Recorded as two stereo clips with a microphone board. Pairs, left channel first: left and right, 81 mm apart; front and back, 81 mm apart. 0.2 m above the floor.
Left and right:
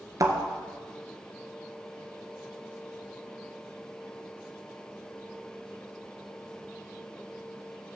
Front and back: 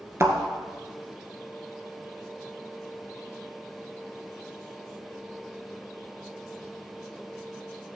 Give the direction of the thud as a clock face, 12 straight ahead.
4 o'clock.